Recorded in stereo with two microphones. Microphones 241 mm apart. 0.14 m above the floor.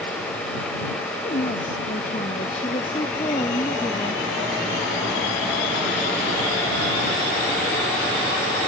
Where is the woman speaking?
35° left (ahead or behind); by 4.2 s 15° left (ahead or behind).